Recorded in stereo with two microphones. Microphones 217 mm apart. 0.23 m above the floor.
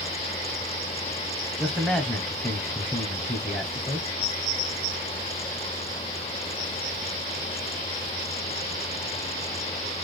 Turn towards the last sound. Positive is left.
turn(degrees=5)  # may be behind; listen again after turning